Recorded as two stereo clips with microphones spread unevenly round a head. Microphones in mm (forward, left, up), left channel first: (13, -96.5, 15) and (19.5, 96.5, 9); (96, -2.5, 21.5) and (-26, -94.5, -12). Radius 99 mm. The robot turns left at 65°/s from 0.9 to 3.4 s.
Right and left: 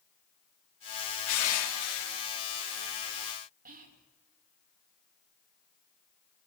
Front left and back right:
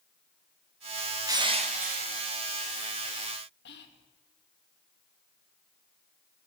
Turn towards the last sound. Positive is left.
turn(degrees=40)